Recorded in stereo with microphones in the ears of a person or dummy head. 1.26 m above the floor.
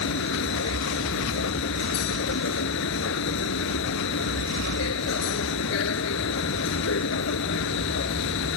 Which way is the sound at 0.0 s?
80° left.